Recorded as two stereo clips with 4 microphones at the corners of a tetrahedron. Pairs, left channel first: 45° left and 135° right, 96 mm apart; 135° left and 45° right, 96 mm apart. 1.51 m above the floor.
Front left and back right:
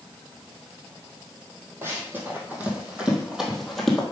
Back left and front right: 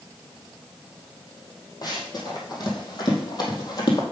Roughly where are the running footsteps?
Behind.